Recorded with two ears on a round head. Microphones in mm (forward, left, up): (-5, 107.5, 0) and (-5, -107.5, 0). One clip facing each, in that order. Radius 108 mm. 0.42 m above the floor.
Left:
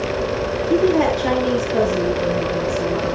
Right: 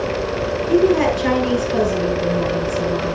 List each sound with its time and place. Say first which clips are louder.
0.7 s a woman speaking: right 1 dB; 35° right (ahead or behind), 9 m; by 3.1 s 40° right (ahead or behind), 10 m